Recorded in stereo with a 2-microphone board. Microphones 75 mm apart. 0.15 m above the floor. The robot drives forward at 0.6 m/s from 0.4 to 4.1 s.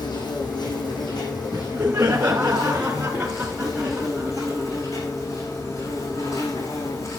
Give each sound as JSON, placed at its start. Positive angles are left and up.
{"t": 0.0, "sound": "an insect", "side_deg": 70, "distance_m": 4.0}
{"t": 1.5, "sound": "laughter", "side_deg": -30, "distance_m": 1.3}